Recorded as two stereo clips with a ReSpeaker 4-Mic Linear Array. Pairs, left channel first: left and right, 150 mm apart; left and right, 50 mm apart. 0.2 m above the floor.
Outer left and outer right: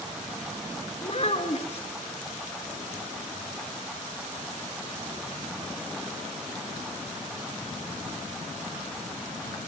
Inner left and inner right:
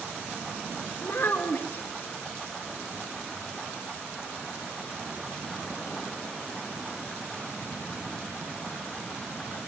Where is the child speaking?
45° left (ahead or behind), 1.4 m.